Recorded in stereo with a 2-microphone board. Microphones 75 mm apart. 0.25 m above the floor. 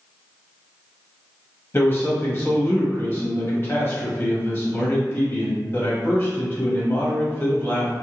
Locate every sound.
1.7 s a man speaking: 35° left (ahead or behind), 1.2 m